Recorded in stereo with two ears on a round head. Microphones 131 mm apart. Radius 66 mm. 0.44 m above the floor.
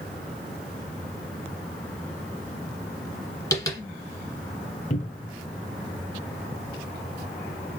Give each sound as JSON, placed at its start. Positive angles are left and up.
{"t": 3.5, "sound": "tapping", "side_deg": 20, "distance_m": 1.6}
{"t": 4.9, "sound": "a cupboard door", "side_deg": 50, "distance_m": 0.8}